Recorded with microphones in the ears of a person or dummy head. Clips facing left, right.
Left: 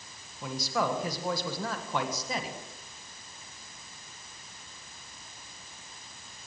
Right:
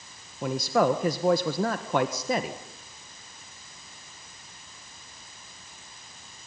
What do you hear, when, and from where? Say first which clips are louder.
0.4 s a man speaking: right 7 dB; 50° right (ahead or behind), 1.4 m